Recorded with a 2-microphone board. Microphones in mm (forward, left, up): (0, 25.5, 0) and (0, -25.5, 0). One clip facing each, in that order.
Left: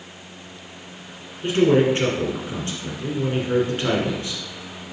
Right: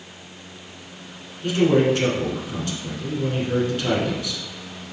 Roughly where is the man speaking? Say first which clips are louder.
Left 1 dB; left.